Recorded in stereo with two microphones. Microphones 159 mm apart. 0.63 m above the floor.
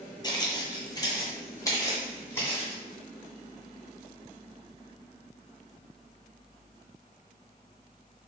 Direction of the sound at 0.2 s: 25° left (ahead or behind).